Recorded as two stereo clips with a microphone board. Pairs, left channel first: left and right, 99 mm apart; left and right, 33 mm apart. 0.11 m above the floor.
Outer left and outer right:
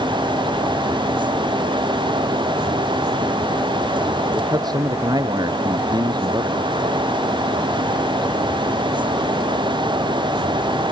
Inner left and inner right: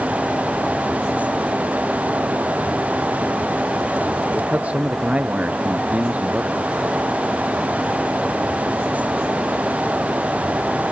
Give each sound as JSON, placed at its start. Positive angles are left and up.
{"t": 4.3, "sound": "a man speaking", "side_deg": -45}